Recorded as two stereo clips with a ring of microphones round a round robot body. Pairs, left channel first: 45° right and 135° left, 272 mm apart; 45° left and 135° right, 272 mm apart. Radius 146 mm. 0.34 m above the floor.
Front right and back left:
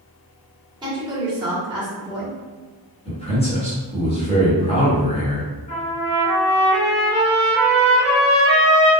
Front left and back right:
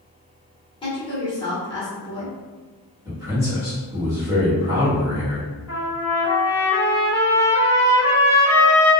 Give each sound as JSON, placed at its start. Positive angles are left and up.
{"t": 0.8, "sound": "a woman speaking", "azimuth_deg": 90, "distance_m": 1.5}
{"t": 3.0, "sound": "a man speaking", "azimuth_deg": -75, "distance_m": 1.4}
{"t": 5.7, "sound": "a trumpet", "azimuth_deg": -70, "distance_m": 1.3}